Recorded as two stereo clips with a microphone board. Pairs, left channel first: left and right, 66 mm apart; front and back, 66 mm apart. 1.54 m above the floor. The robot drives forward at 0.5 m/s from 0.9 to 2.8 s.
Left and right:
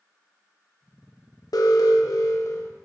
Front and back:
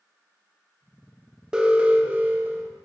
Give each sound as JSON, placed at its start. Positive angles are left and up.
{"t": 1.5, "sound": "an alarm", "azimuth_deg": 105, "distance_m": 1.2}